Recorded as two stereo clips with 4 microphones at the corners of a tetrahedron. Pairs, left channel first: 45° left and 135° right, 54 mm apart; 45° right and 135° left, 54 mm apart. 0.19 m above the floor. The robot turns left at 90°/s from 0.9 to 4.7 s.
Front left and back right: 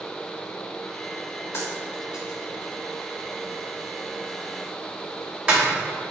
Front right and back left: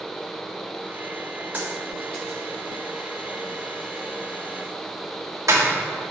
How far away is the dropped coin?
About 3 m.